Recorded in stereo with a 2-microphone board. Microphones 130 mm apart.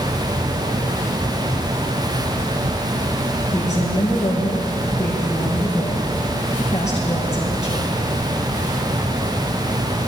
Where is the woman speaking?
55° left (ahead or behind), 5 m.